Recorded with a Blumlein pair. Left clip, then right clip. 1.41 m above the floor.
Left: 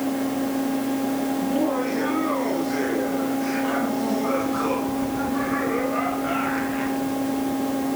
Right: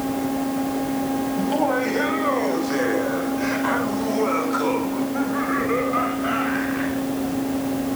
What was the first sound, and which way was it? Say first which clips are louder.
Laughter: right 4 dB; 60° right.